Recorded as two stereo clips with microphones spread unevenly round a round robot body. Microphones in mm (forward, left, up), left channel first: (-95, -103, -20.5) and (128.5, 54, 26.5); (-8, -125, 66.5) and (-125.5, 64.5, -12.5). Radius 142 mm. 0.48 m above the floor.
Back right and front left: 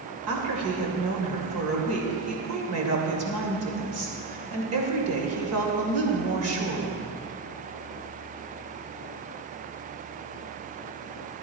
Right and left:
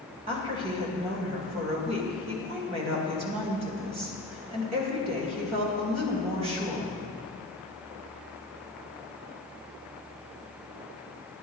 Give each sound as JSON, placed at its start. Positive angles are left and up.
{"t": 0.3, "sound": "a woman speaking", "azimuth_deg": 75, "distance_m": 2.5}